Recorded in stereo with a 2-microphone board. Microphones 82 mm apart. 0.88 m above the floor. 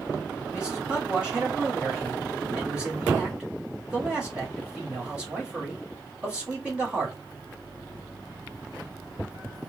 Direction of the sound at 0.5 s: 15° right (ahead or behind).